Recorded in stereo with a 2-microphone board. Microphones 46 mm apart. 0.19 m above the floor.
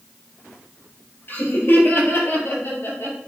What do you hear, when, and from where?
1.3 s laughter: 50° left (ahead or behind), 3.5 m; by 3.2 s 65° left (ahead or behind), 4.5 m